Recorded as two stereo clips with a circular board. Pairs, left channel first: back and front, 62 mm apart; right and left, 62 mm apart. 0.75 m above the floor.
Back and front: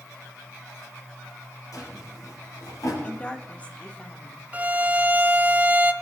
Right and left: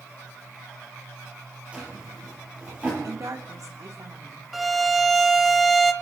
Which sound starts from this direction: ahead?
A violin, at 4.5 s.